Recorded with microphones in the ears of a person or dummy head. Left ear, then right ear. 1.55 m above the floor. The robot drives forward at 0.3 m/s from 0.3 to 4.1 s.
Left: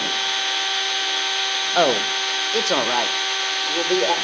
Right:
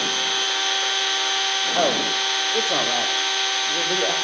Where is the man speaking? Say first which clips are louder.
Left 5 dB; 75° left (ahead or behind), 1.1 m; by 4.2 s 60° left (ahead or behind), 1.3 m.